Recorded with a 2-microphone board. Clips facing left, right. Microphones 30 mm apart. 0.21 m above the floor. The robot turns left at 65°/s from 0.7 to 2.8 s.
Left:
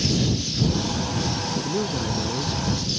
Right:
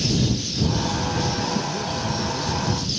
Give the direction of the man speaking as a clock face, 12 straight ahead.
9 o'clock.